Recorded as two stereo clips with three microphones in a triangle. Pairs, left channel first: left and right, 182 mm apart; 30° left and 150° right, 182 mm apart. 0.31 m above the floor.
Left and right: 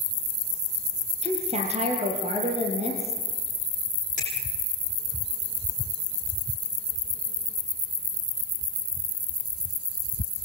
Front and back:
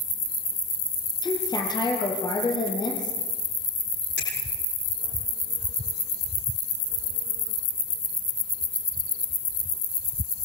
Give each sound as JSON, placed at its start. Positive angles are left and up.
{"t": 1.2, "sound": "a woman speaking", "azimuth_deg": -35, "distance_m": 6.5}
{"t": 4.2, "sound": "a finger snap", "azimuth_deg": 45, "distance_m": 8.5}